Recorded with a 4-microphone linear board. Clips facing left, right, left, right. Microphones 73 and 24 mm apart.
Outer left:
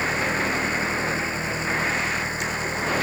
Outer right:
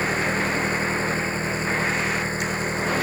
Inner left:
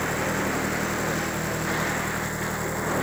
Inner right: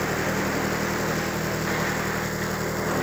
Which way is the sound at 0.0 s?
35° right (ahead or behind).